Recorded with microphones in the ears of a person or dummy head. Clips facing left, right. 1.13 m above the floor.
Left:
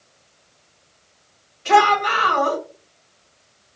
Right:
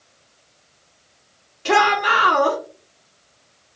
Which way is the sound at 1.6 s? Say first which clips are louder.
Left 2 dB; 70° right (ahead or behind).